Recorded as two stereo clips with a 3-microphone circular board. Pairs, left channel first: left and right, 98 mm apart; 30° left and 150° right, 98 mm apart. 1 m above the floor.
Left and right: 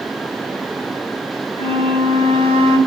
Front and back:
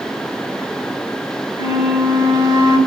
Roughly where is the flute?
Right.